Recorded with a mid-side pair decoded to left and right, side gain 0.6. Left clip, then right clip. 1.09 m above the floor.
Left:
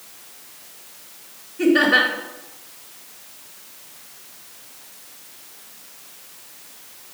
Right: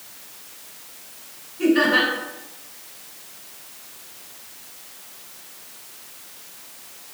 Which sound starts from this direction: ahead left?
Laughter, at 1.6 s.